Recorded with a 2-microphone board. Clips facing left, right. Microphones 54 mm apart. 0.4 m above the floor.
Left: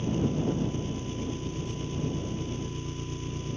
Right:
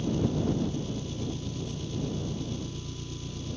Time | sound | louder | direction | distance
0.0 | an engine running | even | 35° left (ahead or behind) | ?